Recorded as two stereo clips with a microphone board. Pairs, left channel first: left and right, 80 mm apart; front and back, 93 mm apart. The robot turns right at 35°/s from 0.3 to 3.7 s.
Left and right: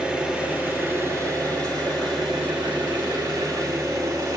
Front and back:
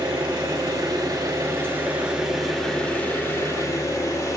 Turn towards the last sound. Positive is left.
turn(degrees=-50)